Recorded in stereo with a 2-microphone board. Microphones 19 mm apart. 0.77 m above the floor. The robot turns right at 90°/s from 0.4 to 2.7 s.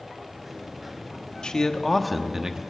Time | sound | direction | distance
1.4 | a man speaking | 115° left | 0.9 m